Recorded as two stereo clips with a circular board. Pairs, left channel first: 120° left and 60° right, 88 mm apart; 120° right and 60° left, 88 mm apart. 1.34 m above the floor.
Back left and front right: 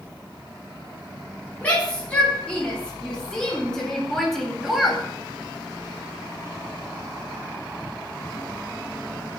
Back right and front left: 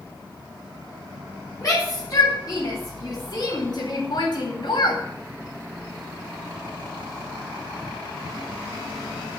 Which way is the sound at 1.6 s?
170° right.